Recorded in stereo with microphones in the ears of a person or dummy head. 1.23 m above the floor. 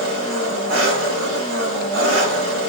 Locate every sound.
0.0 s an engine running: 80° right, 2 m